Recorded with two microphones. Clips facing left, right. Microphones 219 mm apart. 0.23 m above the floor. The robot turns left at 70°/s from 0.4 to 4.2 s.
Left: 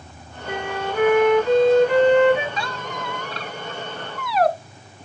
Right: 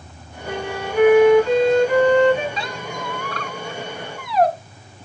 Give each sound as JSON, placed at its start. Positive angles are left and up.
{"t": 0.5, "sound": "a flute", "azimuth_deg": -130, "distance_m": 4.5}
{"t": 2.6, "sound": "a squeak", "side_deg": -25, "distance_m": 0.7}